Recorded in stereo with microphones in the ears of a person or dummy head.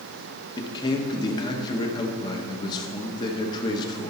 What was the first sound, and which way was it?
A man speaking, 30° left (ahead or behind).